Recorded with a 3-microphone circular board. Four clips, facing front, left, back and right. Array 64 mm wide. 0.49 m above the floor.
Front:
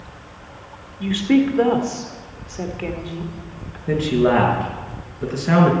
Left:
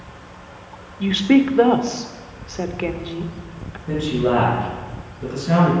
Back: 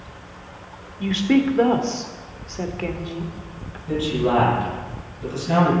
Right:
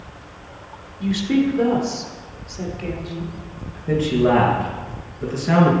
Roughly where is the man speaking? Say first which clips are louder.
Right 2 dB, front 4 dB; ahead.